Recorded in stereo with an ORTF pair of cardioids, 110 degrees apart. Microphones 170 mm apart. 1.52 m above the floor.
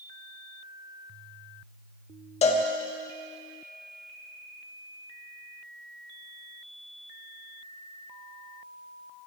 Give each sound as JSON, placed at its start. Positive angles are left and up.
{"t": 2.4, "sound": "a cowbell", "azimuth_deg": 40, "distance_m": 2.0}